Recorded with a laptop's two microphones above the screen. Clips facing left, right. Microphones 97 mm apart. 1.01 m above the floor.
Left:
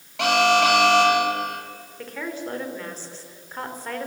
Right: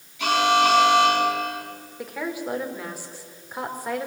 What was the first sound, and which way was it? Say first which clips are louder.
An alarm: left 1 dB; 75° left (ahead or behind).